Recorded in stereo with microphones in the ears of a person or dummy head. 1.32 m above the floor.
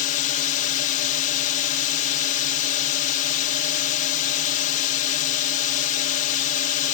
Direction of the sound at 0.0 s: 40° left (ahead or behind).